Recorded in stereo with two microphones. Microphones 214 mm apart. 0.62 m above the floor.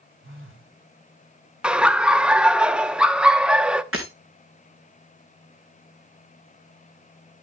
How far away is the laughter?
About 0.6 m.